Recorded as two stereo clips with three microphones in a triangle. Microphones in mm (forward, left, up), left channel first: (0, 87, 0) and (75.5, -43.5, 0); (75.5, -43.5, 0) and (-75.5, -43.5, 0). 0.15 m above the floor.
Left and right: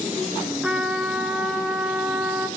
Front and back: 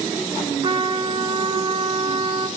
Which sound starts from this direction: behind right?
A trumpet, at 0.6 s.